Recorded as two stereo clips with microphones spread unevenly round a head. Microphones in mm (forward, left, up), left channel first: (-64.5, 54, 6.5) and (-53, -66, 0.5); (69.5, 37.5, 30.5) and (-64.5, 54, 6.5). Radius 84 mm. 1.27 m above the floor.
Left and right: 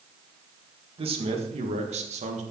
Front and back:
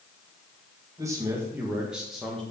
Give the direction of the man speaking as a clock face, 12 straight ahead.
4 o'clock.